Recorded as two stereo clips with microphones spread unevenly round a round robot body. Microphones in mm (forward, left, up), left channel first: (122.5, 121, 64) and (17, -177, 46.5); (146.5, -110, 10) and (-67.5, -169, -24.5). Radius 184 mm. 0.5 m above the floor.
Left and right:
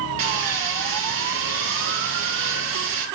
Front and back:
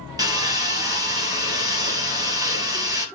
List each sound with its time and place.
0.2 s sawing: 90° right, 4 m